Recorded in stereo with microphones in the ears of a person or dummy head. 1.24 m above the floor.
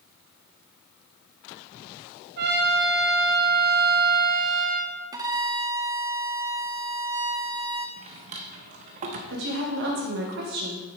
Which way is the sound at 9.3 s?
65° right (ahead or behind).